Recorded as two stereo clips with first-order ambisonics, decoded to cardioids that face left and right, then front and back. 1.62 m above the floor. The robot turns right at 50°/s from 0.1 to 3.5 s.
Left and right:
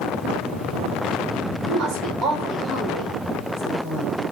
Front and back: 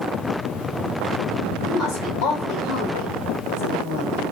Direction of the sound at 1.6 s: 55° right.